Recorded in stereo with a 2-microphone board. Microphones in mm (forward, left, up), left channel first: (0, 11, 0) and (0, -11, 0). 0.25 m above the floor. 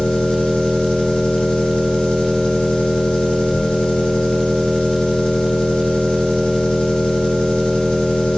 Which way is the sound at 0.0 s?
70° left (ahead or behind).